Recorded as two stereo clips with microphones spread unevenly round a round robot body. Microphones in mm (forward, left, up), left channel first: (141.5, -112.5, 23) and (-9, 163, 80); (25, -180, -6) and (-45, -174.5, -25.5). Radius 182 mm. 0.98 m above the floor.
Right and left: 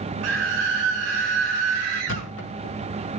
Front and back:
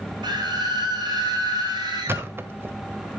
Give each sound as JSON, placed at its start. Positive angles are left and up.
{"t": 0.2, "sound": "a scream", "azimuth_deg": 170, "distance_m": 4.5}
{"t": 2.1, "sound": "a thud", "azimuth_deg": -120, "distance_m": 1.8}